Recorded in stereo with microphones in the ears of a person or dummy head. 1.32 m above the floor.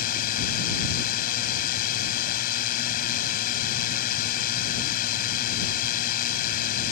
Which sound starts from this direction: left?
A drone, at 0.0 s.